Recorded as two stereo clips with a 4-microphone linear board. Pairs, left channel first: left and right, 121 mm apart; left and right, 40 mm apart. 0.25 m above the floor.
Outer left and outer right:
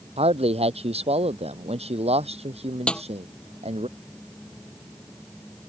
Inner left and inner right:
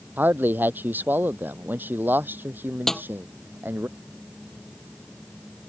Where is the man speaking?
60° right (ahead or behind); by 3.9 s 65° right (ahead or behind).